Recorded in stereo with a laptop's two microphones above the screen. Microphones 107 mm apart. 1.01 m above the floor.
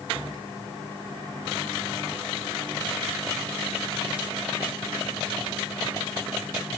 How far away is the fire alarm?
No fire alarm in this recording.